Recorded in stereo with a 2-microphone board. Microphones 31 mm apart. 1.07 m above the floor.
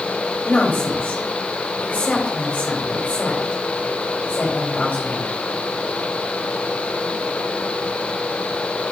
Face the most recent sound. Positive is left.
turn(degrees=65)  # may be behind; listen again after turning